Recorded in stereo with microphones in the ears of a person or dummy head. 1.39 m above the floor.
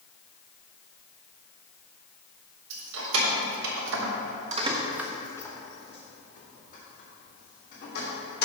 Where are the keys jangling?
80° right, 2 m; by 8.4 s 50° left (ahead or behind), 3.5 m.